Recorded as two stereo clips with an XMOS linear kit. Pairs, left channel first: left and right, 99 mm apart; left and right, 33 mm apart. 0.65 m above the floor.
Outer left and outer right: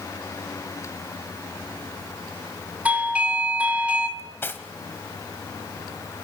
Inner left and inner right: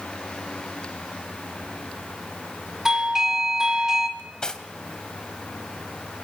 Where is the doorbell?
15° right (ahead or behind), 2.5 m.